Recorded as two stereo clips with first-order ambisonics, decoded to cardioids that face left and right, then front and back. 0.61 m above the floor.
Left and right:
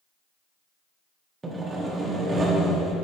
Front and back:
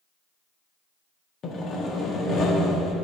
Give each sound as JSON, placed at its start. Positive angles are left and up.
{"t": 1.4, "sound": "sawing", "azimuth_deg": -25, "distance_m": 0.8}